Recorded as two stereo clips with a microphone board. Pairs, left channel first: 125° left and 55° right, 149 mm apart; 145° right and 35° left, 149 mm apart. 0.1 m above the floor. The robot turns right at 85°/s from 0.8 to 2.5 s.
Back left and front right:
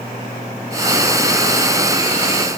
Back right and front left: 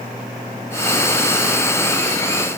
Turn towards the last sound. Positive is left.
No sound to turn to.